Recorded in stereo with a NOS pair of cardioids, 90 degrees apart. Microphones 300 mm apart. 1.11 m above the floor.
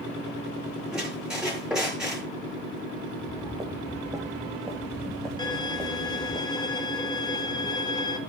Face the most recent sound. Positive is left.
turn(degrees=15)